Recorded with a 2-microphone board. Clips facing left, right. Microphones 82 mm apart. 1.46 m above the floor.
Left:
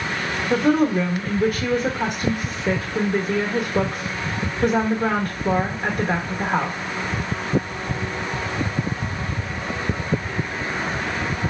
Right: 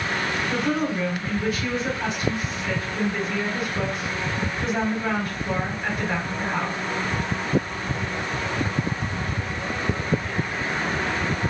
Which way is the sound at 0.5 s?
50° left (ahead or behind).